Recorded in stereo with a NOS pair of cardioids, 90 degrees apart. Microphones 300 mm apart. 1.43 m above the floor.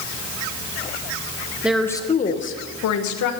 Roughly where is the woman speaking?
Ahead.